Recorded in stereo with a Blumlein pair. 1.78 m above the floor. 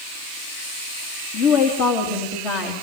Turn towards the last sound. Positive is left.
turn(degrees=40)